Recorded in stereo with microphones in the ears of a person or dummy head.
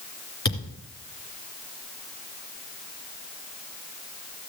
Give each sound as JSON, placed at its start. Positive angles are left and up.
{"t": 0.5, "sound": "a thud", "side_deg": 20, "distance_m": 2.5}